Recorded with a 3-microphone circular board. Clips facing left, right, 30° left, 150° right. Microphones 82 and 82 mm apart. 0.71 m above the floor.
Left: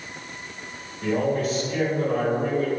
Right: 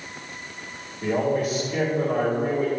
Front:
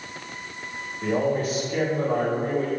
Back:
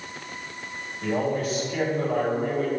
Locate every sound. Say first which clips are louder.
1.0 s a man speaking: even, front 2 dB; 20° right, 2 m